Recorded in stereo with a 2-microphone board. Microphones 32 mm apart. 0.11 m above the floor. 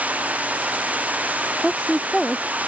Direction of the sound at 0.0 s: 50° right (ahead or behind).